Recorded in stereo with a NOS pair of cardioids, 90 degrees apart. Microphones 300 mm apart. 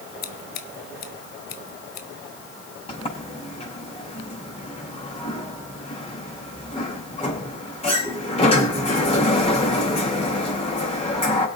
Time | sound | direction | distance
0.2 | scissors | 65° left | 1.4 m
2.9 | a sliding door | 20° left | 5.5 m